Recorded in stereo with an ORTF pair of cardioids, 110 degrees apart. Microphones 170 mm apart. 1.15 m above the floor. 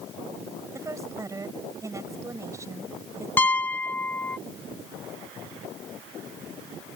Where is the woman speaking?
20° right.